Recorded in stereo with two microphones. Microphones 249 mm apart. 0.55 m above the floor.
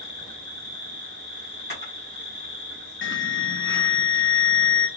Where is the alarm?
50° left (ahead or behind), 0.6 m.